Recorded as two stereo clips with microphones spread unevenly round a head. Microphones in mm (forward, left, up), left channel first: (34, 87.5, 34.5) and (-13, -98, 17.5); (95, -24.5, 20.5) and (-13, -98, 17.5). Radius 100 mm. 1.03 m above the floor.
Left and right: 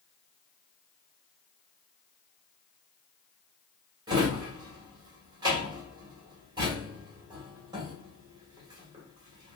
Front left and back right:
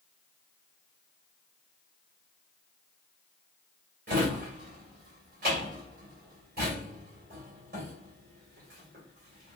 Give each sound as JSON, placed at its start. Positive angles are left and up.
{"t": 4.1, "sound": "a drawer", "azimuth_deg": -175, "distance_m": 1.4}